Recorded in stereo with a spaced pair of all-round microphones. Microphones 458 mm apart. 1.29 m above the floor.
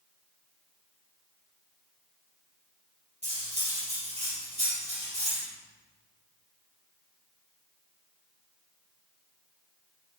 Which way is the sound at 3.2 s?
15° right (ahead or behind).